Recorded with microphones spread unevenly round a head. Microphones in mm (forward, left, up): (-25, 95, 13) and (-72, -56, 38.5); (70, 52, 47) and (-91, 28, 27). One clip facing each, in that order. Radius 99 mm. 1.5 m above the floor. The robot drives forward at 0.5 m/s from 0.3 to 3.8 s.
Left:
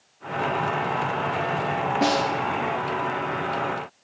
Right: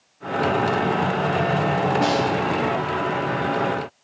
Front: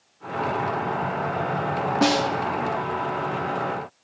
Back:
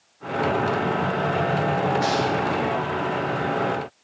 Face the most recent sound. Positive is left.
turn(degrees=-105)